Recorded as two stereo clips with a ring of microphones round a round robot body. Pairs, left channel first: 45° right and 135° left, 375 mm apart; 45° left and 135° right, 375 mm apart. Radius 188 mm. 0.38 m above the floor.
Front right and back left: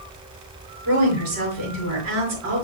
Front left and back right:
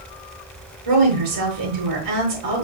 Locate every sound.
0.8 s a woman speaking: 175° right, 4 m